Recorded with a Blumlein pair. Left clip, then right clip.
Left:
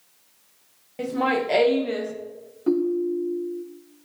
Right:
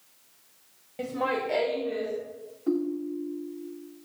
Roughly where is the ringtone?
Ahead left.